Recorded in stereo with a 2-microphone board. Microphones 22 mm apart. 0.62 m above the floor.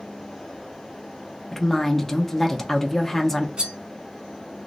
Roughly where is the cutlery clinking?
Right.